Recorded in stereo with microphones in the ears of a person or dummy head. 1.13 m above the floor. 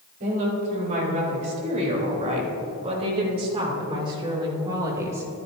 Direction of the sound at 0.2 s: 45° right (ahead or behind).